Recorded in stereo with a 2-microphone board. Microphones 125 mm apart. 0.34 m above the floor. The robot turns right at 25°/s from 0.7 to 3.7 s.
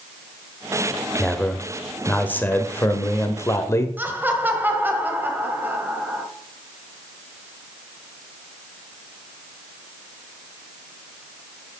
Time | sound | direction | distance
1.2 | a man speaking | 5° left (ahead or behind) | 1.1 m
4.0 | laughter | 15° right (ahead or behind) | 1.8 m